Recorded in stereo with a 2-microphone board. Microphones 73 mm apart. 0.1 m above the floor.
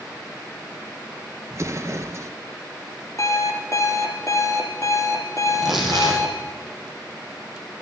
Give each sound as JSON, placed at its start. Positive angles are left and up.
{"t": 1.5, "sound": "an explosion", "side_deg": -40, "distance_m": 0.8}
{"t": 3.2, "sound": "an alarm clock", "side_deg": 45, "distance_m": 1.6}
{"t": 5.5, "sound": "tearing paper", "side_deg": 0, "distance_m": 3.5}